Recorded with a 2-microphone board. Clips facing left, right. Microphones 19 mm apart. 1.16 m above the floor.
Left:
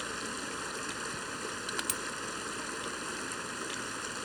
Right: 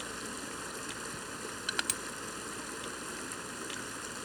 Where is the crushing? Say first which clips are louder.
Right 3 dB; 15° right (ahead or behind).